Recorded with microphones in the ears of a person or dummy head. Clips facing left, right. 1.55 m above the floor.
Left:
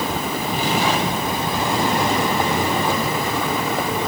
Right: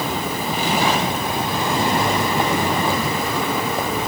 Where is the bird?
I don't hear a bird.